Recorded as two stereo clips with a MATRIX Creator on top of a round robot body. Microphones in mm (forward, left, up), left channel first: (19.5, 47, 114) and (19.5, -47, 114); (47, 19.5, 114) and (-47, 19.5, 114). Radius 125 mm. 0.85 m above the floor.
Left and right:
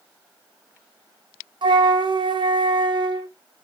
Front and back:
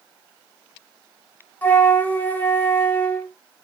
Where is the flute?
70° right, 1.1 m.